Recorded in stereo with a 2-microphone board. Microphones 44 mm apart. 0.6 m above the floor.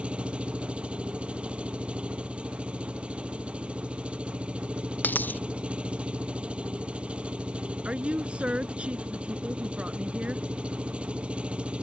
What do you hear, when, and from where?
0.0 s an engine running: 25° right (ahead or behind)
5.0 s a dropped coin: 45° left (ahead or behind)
7.8 s a woman speaking: 30° right (ahead or behind)